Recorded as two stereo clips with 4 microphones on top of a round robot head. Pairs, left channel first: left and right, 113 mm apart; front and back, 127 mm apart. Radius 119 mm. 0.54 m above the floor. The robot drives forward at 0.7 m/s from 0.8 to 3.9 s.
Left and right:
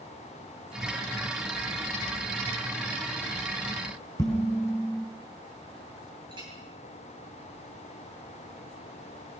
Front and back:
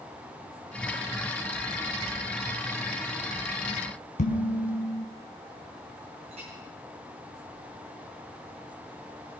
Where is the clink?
135° right, 8 m.